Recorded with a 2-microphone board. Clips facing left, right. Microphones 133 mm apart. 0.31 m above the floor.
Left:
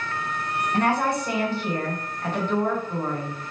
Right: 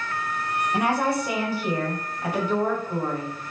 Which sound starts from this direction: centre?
A woman speaking, at 0.7 s.